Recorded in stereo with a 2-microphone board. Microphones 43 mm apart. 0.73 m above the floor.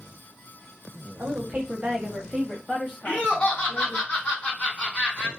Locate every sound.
1.2 s a woman speaking: 55° right (ahead or behind), 0.9 m; by 4.0 s 25° left (ahead or behind), 1.3 m
3.0 s laughter: 35° left (ahead or behind), 1.5 m